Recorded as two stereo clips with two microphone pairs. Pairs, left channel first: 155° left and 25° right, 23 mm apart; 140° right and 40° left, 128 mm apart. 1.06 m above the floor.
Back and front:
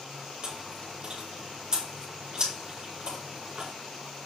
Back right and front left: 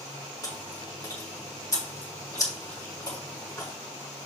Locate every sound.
0.4 s chewing: 80° right, 4.5 m